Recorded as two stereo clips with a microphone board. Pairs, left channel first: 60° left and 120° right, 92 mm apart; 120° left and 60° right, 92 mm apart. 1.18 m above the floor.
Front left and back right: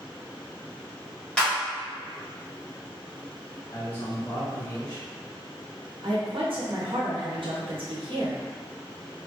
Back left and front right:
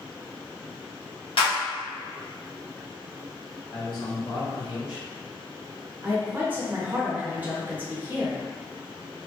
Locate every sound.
1.4 s a clap: 140° left, 1.1 m
3.7 s a man speaking: 125° left, 1.5 m
6.0 s a woman speaking: 130° right, 0.9 m